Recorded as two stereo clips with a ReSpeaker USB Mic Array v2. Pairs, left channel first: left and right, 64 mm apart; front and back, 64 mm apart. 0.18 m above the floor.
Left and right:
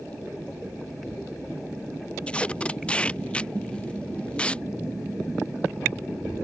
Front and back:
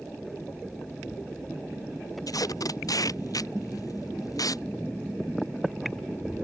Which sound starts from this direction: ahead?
Tape being pulled, at 2.3 s.